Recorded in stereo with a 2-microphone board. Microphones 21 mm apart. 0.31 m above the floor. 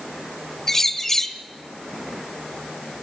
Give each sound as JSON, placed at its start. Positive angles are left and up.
{"t": 0.7, "sound": "a bird", "side_deg": 20, "distance_m": 1.2}